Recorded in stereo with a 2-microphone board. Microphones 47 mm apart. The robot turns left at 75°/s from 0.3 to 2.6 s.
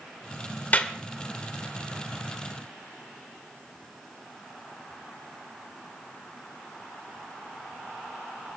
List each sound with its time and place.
0.7 s a clap: 35° left (ahead or behind), 1.5 m; by 0.9 s 20° left (ahead or behind), 1.5 m